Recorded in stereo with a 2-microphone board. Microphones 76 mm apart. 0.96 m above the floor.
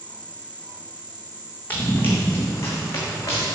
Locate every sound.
1.7 s running footsteps: 20° left (ahead or behind), 3 m; by 3.5 s 45° left (ahead or behind), 4 m